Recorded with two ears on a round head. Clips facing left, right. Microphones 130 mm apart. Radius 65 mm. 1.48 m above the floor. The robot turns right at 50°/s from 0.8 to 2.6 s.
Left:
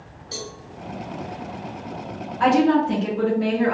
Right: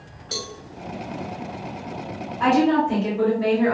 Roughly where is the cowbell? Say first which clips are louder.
Right 1 dB; right.